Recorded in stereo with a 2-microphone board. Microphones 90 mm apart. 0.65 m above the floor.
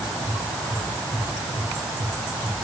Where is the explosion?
I don't hear an explosion.